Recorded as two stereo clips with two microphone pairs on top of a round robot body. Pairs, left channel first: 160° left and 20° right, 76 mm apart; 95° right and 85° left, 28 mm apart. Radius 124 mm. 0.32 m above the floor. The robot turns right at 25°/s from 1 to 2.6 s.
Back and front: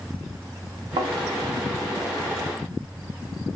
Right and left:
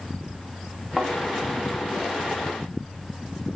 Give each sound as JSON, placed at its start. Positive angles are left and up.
{"t": 1.0, "sound": "a thud", "azimuth_deg": 0, "distance_m": 3.5}